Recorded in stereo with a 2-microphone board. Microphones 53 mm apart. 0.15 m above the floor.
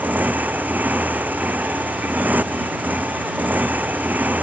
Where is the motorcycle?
35° right (ahead or behind).